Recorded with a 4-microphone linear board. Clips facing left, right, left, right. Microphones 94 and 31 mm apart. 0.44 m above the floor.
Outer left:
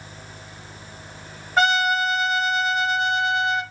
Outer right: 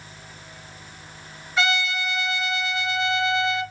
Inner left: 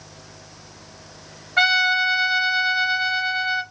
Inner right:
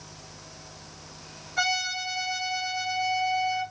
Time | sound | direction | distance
1.6 | a trumpet | 45° left (ahead or behind) | 1.0 m